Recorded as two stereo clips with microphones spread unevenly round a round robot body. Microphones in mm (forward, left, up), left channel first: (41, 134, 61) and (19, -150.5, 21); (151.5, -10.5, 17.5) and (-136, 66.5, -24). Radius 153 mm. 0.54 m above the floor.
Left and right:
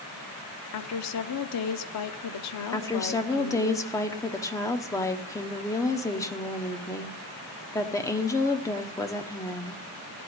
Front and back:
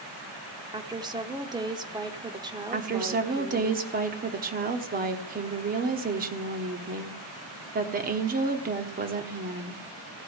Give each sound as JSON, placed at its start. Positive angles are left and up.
{"t": 0.7, "sound": "a woman speaking", "azimuth_deg": 100, "distance_m": 0.9}
{"t": 2.7, "sound": "a woman speaking", "azimuth_deg": 170, "distance_m": 1.0}